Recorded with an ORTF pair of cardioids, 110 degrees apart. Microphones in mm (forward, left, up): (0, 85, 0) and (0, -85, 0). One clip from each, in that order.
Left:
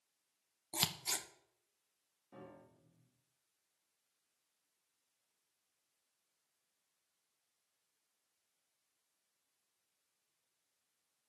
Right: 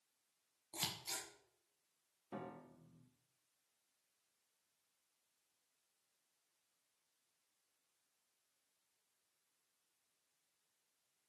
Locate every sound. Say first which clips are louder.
0.7 s scissors: left 6 dB; 50° left, 1.4 m
2.3 s a piano: right 5 dB; 60° right, 2 m